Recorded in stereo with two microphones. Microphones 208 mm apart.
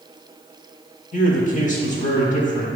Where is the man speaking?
35° left (ahead or behind), 1.2 m.